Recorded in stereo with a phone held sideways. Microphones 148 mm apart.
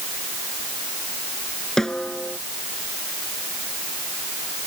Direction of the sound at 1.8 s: 5° left (ahead or behind).